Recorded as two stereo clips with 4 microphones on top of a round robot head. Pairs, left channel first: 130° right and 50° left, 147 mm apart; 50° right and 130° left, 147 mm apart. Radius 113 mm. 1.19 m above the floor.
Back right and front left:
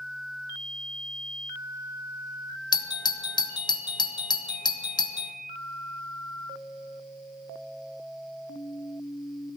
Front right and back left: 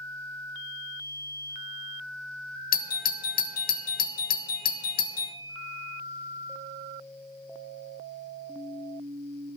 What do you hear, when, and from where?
2.7 s a doorbell: 70° right, 1.5 m